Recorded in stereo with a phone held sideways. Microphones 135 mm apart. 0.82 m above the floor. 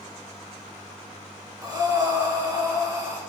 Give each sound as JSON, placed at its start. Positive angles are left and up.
{"t": 1.6, "sound": "breathing", "side_deg": -25, "distance_m": 3.0}